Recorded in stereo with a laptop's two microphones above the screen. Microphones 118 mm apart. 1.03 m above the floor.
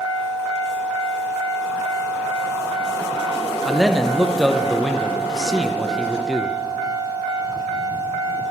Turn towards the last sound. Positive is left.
turn(degrees=0)  # may be behind; listen again after turning